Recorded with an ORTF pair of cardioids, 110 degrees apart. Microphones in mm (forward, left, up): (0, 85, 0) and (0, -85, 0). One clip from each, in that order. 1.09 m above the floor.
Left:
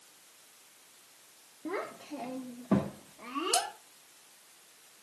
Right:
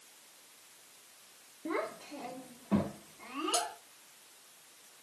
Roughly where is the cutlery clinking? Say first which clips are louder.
Left 3 dB; ahead left.